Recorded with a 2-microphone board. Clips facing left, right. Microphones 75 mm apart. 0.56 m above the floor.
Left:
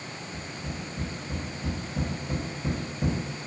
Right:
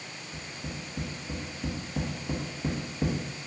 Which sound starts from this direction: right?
Tapping, at 0.3 s.